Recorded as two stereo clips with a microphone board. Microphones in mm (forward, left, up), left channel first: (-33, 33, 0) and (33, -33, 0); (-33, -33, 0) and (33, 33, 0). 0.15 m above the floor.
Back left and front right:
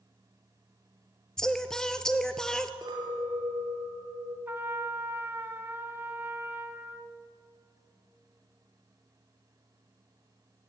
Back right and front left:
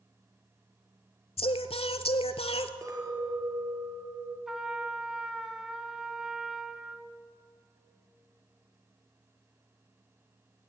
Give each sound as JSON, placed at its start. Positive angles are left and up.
{"t": 1.4, "sound": "singing", "azimuth_deg": -140, "distance_m": 0.6}
{"t": 2.8, "sound": "a clink", "azimuth_deg": -5, "distance_m": 2.0}
{"t": 4.5, "sound": "a trumpet", "azimuth_deg": -35, "distance_m": 0.8}